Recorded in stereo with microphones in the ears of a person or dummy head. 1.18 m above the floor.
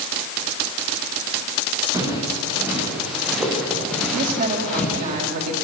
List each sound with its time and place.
1.9 s footsteps: 15° right (ahead or behind), 7 m; by 5.1 s 15° left (ahead or behind), 7 m
4.1 s a woman speaking: 50° right (ahead or behind), 5 m